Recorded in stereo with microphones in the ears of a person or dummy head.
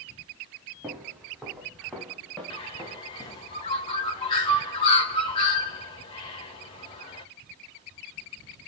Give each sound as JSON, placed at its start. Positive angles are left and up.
{"t": 0.8, "sound": "footsteps", "side_deg": -10, "distance_m": 4.5}
{"t": 2.5, "sound": "a bird", "side_deg": 30, "distance_m": 1.8}